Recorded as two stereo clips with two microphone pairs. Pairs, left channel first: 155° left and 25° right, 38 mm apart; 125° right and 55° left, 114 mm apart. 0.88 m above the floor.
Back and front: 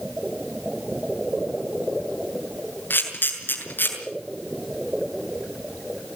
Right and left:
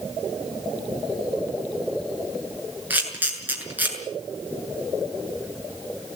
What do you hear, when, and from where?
2.9 s a camera shutter: 130° left, 6.5 m